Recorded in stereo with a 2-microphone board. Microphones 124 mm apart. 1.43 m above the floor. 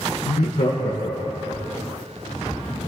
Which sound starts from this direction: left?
Laughter, at 0.3 s.